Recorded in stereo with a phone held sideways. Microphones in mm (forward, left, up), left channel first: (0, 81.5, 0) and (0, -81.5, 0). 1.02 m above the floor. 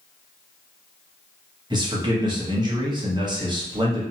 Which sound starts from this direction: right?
A man speaking, at 1.7 s.